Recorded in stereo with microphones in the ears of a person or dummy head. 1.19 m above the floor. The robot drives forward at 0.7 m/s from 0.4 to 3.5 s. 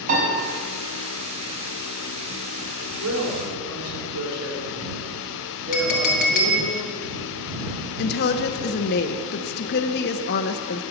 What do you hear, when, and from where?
0.1 s a piano: 40° right (ahead or behind), 5 m
3.0 s a woman speaking: 80° right, 4 m
5.7 s a clink: 50° left (ahead or behind), 1.2 m
8.0 s a woman speaking: 55° left (ahead or behind), 0.7 m